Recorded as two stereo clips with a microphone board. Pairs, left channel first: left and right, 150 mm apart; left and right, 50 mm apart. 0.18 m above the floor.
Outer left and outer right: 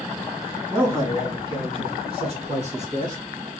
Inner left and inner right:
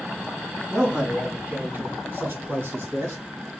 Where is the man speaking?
10° right (ahead or behind), 1.4 m; by 3.2 s 55° right (ahead or behind), 2.5 m.